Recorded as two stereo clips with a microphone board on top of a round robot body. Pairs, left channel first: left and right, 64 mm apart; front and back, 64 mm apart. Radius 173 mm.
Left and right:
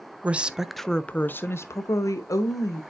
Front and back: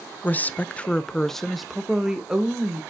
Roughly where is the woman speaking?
Ahead right.